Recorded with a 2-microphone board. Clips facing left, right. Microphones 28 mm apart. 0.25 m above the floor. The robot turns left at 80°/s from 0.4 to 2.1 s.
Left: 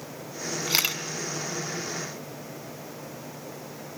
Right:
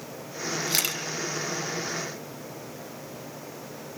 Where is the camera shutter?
30° left (ahead or behind), 1.5 m; by 1.0 s 5° left (ahead or behind), 1.5 m.